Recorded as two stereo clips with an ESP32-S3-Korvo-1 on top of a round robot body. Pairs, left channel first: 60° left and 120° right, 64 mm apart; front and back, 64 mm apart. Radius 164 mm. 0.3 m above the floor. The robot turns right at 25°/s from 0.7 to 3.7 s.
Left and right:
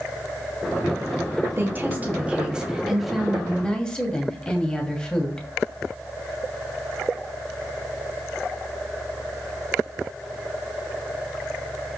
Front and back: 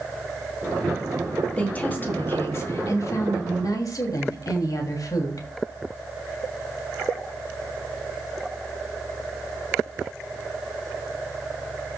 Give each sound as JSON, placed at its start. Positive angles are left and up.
{"t": 1.6, "sound": "a woman speaking", "azimuth_deg": -70, "distance_m": 2.5}